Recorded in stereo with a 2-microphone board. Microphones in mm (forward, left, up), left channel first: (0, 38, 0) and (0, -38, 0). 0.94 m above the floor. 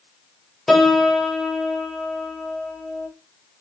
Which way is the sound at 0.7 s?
5° left (ahead or behind).